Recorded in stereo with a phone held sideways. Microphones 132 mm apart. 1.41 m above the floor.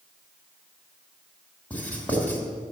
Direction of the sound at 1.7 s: 10° left (ahead or behind).